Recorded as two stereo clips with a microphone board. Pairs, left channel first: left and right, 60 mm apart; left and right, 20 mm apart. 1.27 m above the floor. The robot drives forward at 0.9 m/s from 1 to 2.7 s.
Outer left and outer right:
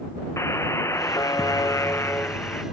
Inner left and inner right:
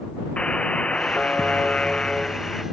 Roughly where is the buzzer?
Left.